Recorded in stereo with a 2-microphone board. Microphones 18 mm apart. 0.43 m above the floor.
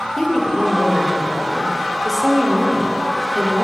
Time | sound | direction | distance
0.2 | a woman speaking | 15° left (ahead or behind) | 1.5 m